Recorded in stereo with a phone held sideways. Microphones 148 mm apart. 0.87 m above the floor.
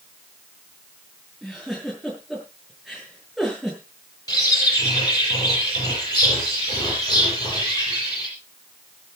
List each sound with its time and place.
1.4 s a giggle: centre (ahead or behind), 7.5 m
4.3 s a bird: 25° left (ahead or behind), 9.5 m